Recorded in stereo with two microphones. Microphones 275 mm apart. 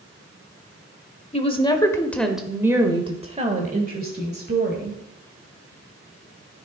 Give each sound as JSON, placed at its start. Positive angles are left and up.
{"t": 1.3, "sound": "a woman speaking", "side_deg": 25, "distance_m": 1.1}